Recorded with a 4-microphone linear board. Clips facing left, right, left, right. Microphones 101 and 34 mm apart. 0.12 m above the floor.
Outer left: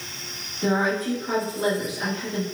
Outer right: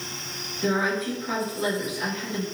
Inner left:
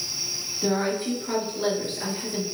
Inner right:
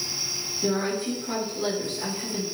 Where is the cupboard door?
No cupboard door in this recording.